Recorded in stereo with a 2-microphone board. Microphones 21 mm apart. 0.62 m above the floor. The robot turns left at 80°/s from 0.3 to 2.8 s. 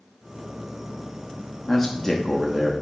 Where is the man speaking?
20° left (ahead or behind), 0.7 m; by 2.7 s 5° right (ahead or behind), 0.7 m.